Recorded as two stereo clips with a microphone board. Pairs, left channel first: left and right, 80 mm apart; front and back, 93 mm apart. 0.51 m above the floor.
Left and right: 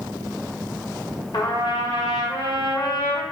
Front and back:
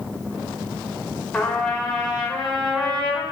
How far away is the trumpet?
About 1.0 m.